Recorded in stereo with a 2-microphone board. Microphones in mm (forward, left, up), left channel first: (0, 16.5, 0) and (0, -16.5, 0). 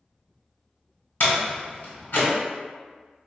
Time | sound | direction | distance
1.2 | a door slam | 65° left (ahead or behind) | 1.5 m